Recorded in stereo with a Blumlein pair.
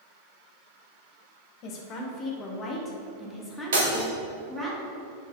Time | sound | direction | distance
1.6 | a woman speaking | 35° left | 1.8 m
3.7 | breaking glass | 60° right | 2.5 m